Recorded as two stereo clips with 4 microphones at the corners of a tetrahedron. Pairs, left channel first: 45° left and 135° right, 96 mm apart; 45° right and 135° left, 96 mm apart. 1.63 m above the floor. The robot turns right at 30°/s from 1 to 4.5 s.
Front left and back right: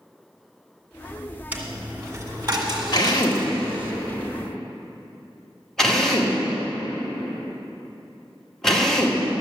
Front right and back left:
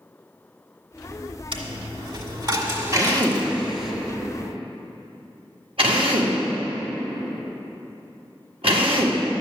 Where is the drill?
85° left, 1.9 m; by 9.2 s 130° left, 1.9 m.